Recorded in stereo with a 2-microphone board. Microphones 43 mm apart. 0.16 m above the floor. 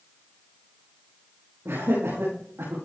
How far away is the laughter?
About 7 m.